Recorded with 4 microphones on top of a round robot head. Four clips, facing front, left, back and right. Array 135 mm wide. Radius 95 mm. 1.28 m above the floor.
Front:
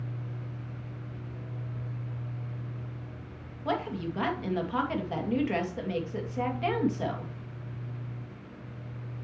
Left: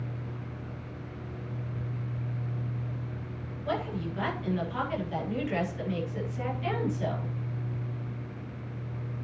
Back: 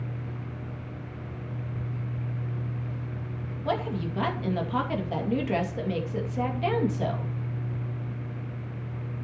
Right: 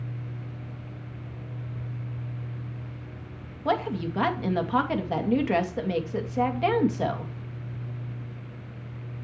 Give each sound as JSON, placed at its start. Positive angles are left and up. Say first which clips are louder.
{"t": 3.6, "sound": "a woman speaking", "louder": "right 6 dB, back 2 dB", "azimuth_deg": -100, "distance_m": 2.5}